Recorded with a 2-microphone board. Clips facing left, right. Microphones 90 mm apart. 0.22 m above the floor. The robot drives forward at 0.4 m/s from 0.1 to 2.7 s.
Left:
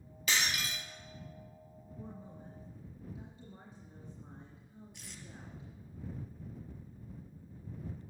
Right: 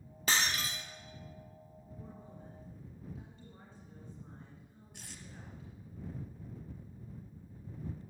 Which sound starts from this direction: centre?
A woman speaking, at 2.0 s.